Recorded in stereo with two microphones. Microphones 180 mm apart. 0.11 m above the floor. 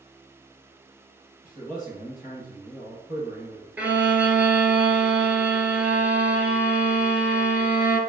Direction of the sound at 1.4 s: 45° left (ahead or behind).